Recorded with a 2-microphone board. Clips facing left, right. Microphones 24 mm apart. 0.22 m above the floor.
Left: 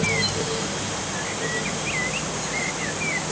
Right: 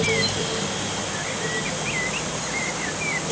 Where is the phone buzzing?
I don't hear a phone buzzing.